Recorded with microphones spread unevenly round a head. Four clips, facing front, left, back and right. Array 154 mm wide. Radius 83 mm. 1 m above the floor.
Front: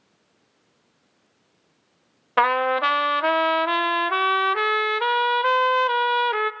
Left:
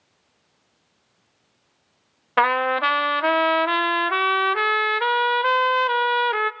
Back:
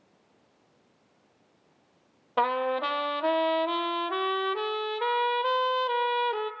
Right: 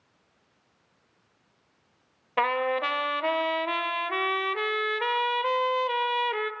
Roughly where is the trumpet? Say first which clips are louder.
Left 6 dB, front 6 dB; left.